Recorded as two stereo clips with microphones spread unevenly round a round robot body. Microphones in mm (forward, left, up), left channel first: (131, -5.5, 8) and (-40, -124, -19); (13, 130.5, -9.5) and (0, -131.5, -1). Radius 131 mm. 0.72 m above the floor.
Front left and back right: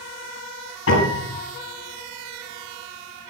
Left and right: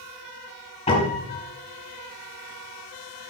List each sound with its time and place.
0.9 s a piano: 20° left, 4.5 m